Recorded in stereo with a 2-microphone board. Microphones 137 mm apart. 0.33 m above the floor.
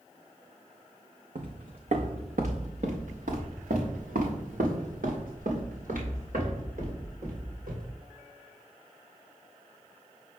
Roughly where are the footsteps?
Right.